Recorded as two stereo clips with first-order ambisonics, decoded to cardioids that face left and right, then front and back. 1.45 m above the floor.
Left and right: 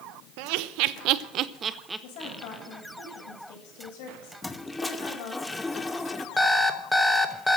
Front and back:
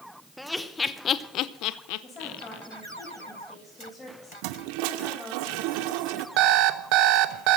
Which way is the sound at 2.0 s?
75° left.